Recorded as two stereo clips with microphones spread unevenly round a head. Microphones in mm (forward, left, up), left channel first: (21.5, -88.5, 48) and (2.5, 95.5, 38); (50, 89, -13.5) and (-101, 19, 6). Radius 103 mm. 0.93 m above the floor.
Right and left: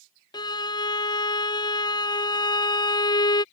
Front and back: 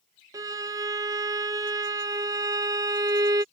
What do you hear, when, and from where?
0.3 s a violin: 105° right